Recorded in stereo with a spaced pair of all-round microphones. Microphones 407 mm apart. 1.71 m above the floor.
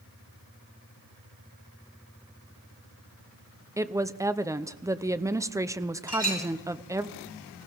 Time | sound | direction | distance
3.8 | a woman speaking | 10° right (ahead or behind) | 0.5 m
6.1 | a clink | 70° left (ahead or behind) | 5 m